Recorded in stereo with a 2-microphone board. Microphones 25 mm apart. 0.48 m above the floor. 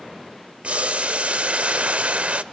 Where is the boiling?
70° right (ahead or behind), 0.6 m.